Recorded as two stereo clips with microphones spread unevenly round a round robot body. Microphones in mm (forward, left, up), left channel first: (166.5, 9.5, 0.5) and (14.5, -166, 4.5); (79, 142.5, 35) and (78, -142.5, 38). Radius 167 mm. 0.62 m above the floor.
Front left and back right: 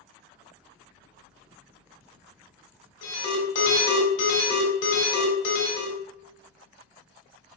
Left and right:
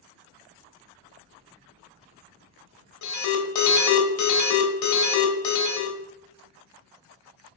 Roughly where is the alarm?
Left.